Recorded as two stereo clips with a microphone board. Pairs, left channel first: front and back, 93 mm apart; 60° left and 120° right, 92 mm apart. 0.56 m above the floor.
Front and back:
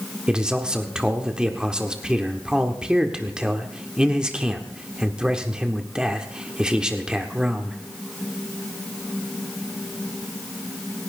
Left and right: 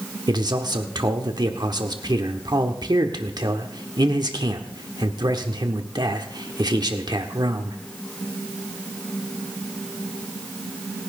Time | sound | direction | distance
0.3 | a man speaking | 100° right | 1.3 m